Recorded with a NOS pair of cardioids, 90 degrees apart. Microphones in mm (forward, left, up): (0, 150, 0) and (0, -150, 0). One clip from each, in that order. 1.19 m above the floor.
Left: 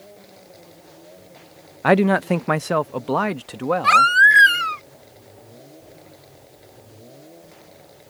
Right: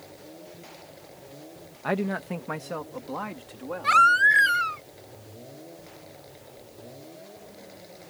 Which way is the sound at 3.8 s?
40° left.